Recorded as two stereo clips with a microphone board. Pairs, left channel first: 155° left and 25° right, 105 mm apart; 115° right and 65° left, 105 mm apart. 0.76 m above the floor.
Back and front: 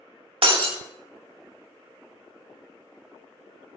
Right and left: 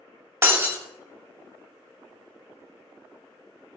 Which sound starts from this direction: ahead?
Breaking glass, at 0.4 s.